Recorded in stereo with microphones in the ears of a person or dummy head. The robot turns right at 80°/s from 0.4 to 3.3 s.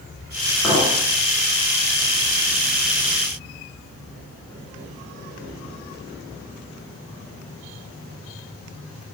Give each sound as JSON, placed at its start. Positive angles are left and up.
{"t": 0.6, "sound": "a clink", "side_deg": 5, "distance_m": 1.5}